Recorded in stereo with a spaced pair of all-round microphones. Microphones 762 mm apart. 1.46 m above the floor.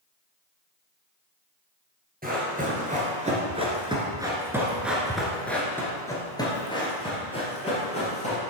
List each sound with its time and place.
2.2 s running footsteps: 10° right (ahead or behind), 1.8 m; by 8.4 s 10° left (ahead or behind), 2.5 m